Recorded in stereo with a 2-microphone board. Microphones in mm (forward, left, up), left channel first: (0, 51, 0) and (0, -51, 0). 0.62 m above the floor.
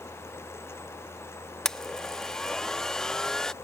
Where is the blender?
5° left (ahead or behind).